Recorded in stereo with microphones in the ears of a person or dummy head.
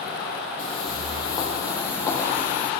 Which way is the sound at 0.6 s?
35° left (ahead or behind).